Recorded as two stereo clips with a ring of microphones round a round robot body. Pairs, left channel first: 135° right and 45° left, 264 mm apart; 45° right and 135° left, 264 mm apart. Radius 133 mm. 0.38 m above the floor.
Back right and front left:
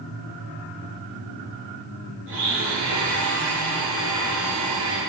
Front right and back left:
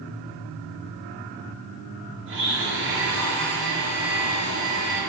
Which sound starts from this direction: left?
A blender, at 2.3 s.